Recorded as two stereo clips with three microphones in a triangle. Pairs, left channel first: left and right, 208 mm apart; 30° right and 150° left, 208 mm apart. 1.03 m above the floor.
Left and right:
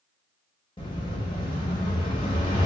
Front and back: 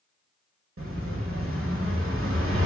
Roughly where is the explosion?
Behind left.